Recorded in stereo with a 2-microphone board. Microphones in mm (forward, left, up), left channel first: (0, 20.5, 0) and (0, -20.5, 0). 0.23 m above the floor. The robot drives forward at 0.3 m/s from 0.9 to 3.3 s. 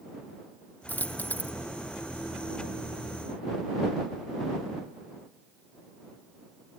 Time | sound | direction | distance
0.9 | a dropped coin | 45° left (ahead or behind) | ?